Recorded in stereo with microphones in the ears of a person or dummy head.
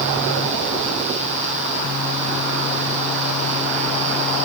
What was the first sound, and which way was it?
Only background noise.